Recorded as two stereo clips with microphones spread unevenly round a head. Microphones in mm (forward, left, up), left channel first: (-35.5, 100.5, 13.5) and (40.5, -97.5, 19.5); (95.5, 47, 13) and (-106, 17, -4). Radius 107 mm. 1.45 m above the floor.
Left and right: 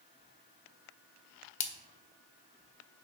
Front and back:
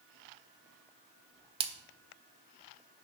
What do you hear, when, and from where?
1.6 s a splash: 140° left, 1.2 m